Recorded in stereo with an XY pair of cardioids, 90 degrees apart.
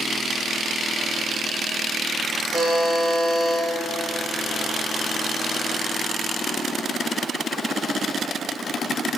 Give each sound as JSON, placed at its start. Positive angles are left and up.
{"t": 2.5, "sound": "a buzzer", "azimuth_deg": -45, "distance_m": 1.0}